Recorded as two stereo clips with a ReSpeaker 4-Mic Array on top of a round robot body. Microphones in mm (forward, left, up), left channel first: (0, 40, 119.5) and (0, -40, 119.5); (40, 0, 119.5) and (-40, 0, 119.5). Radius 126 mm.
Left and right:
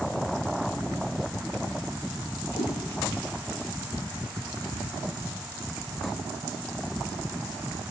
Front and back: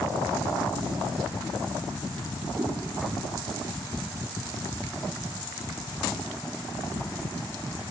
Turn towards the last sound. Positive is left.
turn(degrees=95)